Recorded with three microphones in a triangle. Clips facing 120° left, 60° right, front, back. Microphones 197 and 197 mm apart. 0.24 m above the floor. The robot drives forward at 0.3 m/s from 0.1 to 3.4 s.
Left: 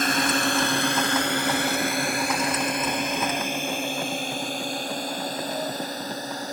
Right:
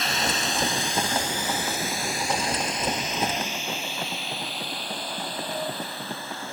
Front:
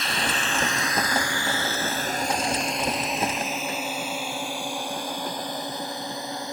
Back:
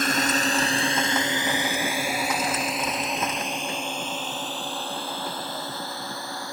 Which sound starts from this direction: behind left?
A drone, at 0.0 s.